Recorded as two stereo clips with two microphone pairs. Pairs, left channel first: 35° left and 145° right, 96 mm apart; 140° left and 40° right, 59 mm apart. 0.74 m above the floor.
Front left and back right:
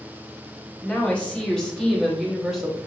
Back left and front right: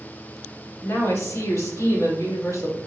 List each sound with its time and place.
0.8 s a woman speaking: 110° left, 2 m; by 2.8 s 130° left, 3 m